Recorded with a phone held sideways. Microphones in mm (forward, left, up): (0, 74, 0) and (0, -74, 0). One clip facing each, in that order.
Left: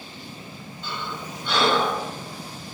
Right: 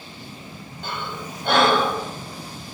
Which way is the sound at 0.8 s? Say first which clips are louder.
Right 2 dB; 55° right (ahead or behind).